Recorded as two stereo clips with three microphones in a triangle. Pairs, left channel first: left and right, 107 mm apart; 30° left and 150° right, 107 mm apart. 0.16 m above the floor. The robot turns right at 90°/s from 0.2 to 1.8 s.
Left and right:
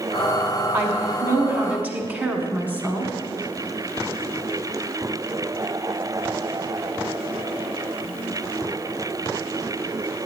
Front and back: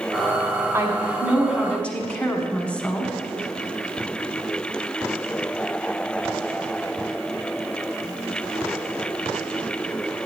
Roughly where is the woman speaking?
Behind right.